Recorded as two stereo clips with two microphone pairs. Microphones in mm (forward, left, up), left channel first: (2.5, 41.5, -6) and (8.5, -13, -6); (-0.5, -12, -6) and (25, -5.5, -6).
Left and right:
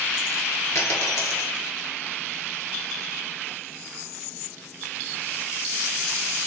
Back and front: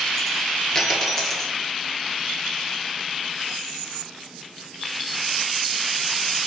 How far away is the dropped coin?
About 1.2 m.